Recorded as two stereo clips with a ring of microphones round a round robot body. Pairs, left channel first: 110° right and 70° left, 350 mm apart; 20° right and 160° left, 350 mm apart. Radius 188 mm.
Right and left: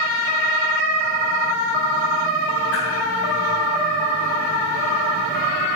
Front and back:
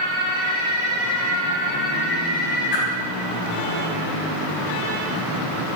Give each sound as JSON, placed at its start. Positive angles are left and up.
{"t": 2.7, "sound": "a whoosh", "azimuth_deg": -20, "distance_m": 3.5}